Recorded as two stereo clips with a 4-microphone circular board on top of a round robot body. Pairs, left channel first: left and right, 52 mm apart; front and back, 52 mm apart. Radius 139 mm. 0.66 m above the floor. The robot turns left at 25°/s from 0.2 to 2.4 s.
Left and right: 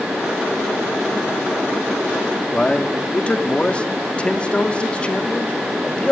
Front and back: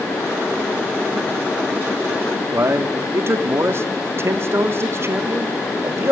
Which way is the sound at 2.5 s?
155° left.